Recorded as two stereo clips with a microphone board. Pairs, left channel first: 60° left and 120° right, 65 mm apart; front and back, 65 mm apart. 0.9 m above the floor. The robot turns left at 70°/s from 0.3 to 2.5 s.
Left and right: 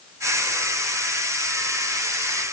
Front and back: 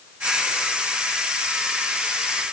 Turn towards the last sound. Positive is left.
No sound to turn to.